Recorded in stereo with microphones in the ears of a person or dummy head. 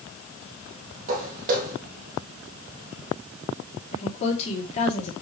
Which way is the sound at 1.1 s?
45° right (ahead or behind).